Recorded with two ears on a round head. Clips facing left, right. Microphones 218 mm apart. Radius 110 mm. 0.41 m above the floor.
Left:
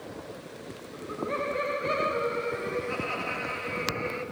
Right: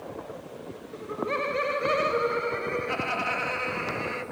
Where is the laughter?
50° right (ahead or behind), 1.8 m; by 4.2 s 70° right (ahead or behind), 3.5 m.